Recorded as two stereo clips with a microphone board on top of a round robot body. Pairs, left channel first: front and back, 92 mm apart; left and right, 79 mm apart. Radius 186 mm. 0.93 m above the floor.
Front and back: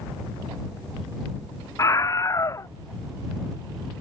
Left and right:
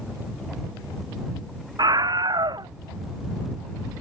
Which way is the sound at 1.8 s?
55° right.